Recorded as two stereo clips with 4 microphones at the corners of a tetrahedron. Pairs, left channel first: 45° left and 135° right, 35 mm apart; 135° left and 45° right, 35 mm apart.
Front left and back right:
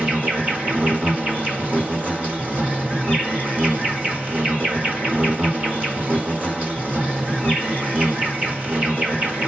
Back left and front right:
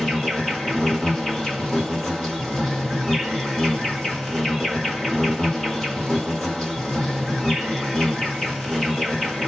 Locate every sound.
0.0 s an insect: 140° right, 1.6 m